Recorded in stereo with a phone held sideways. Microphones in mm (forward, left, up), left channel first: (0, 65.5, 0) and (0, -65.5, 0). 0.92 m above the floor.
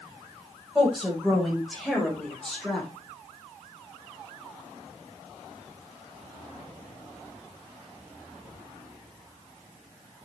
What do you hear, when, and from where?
0.8 s a woman speaking: centre (ahead or behind), 6.5 m; by 2.9 s 5° left (ahead or behind), 4.5 m